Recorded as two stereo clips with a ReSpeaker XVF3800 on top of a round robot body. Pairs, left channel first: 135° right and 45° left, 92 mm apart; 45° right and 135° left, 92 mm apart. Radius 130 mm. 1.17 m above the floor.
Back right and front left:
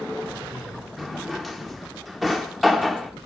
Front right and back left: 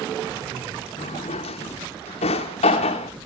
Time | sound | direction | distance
1.0 | a drawer | 45° right | 0.7 m